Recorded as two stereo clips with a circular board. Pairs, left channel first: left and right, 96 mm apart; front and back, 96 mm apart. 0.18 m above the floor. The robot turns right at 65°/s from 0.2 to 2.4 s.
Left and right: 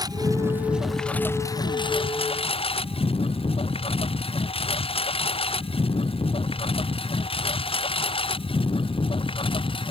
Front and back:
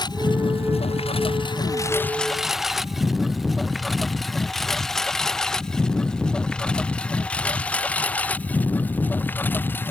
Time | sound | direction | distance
0.0 | a lawn mower | 45° right | ?